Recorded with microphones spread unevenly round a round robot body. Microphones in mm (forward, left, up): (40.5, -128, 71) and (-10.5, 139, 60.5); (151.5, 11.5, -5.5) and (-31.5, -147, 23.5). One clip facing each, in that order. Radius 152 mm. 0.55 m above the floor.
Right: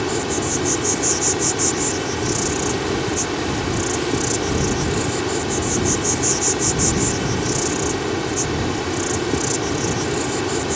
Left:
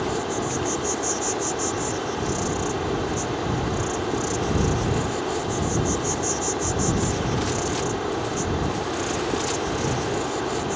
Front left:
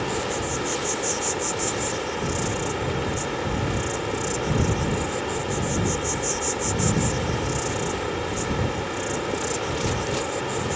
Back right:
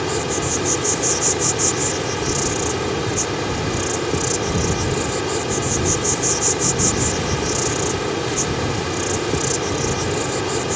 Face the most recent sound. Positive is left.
turn(degrees=-120)